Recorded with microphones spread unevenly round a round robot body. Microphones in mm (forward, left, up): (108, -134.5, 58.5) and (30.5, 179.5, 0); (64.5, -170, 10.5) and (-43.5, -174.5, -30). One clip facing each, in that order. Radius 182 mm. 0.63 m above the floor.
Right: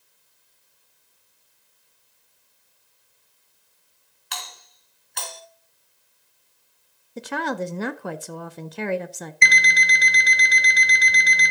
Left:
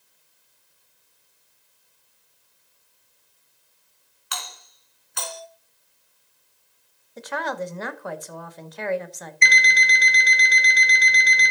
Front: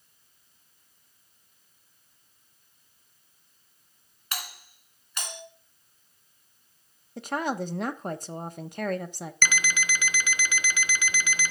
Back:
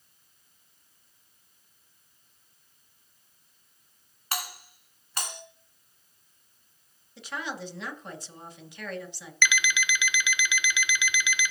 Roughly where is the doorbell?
Behind.